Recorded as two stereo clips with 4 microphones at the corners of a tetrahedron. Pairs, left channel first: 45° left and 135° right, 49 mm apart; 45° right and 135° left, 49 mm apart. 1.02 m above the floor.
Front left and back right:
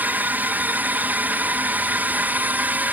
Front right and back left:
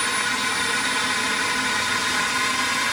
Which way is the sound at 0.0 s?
130° right.